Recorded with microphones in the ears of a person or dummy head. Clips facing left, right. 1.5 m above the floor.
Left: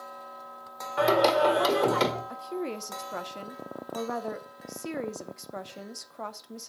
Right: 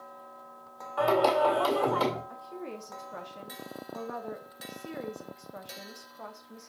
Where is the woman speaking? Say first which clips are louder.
Left 7 dB; 65° left (ahead or behind), 0.6 m.